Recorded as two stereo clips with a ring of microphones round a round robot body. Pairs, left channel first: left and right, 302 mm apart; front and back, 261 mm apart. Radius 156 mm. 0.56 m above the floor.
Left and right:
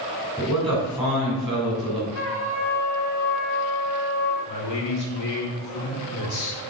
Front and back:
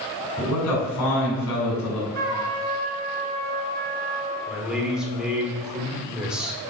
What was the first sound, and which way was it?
A man speaking, straight ahead.